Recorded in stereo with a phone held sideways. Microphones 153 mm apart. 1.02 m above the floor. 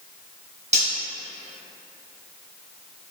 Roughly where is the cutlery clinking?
Right.